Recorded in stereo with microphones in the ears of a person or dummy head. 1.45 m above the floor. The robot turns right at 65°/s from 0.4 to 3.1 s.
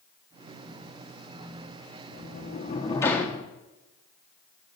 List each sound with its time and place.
2.1 s a sliding door: 105° left, 1.3 m; by 3.5 s 170° left, 1.3 m